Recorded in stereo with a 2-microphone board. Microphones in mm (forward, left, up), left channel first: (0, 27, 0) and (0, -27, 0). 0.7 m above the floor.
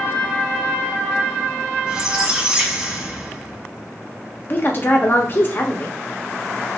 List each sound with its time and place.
1.9 s a squeak: 20° right (ahead or behind), 0.8 m
4.5 s a woman speaking: 40° left (ahead or behind), 0.8 m